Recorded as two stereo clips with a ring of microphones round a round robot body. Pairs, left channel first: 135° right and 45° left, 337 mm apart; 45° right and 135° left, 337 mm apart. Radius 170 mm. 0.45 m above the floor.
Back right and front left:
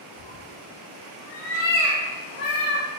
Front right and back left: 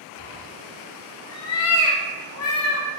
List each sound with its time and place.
0.2 s a cat meowing: 130° right, 0.7 m; by 2.9 s 80° right, 1.8 m